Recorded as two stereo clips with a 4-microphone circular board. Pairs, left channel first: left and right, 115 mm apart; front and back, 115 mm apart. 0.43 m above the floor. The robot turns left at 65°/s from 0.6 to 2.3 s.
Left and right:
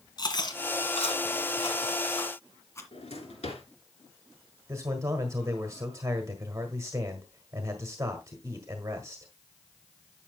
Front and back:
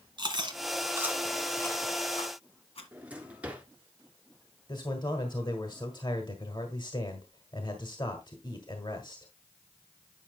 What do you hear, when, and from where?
0.2 s chewing: 135° left, 1.9 m; by 2.8 s 25° left, 1.9 m
2.9 s a drawer: 105° left, 2 m
4.7 s a man speaking: 35° right, 1.6 m